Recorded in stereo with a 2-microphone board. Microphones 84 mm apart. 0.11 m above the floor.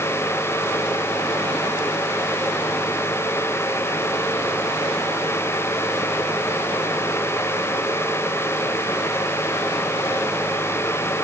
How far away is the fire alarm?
No fire alarm in this recording.